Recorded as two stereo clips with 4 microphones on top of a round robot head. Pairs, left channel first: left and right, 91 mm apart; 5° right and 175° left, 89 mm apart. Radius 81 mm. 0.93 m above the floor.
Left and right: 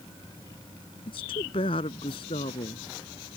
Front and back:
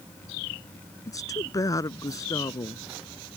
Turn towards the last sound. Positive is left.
turn(degrees=50)